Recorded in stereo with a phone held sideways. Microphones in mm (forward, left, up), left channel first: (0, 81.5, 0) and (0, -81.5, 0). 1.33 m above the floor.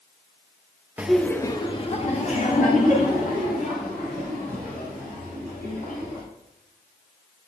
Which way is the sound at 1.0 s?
10° right (ahead or behind).